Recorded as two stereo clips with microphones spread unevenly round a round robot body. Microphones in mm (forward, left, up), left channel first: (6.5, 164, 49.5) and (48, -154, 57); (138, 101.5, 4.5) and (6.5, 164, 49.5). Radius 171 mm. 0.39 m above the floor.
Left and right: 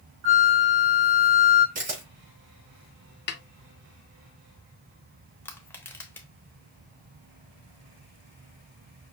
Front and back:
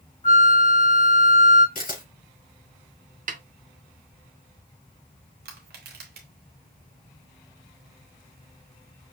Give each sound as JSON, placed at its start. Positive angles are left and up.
{"t": 0.2, "sound": "a flute", "azimuth_deg": -45, "distance_m": 3.0}
{"t": 1.8, "sound": "a camera shutter", "azimuth_deg": -15, "distance_m": 3.5}
{"t": 3.3, "sound": "a snare drum", "azimuth_deg": 135, "distance_m": 0.6}
{"t": 5.5, "sound": "crushing", "azimuth_deg": 180, "distance_m": 0.7}